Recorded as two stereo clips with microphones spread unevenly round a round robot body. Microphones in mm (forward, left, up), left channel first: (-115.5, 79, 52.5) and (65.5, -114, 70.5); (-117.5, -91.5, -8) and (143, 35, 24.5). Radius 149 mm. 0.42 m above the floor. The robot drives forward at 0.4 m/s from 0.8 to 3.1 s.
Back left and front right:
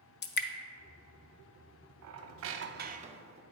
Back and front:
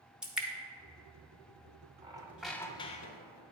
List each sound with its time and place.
0.2 s dripping: 120° left, 0.6 m
2.0 s a squeak: 50° right, 0.6 m; by 3.4 s 110° right, 0.5 m